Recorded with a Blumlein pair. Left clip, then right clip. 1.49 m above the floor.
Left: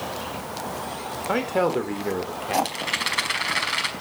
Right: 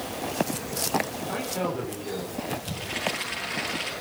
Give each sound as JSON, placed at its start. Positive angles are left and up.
{"t": 1.3, "sound": "a man speaking", "azimuth_deg": 30, "distance_m": 4.0}
{"t": 2.6, "sound": "a rattle", "azimuth_deg": 40, "distance_m": 5.0}